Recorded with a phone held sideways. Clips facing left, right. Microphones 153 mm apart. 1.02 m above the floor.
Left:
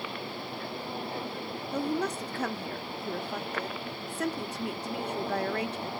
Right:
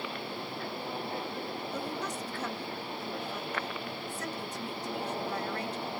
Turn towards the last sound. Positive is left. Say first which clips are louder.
# left 10 dB
turn(degrees=65)  # may be behind; listen again after turning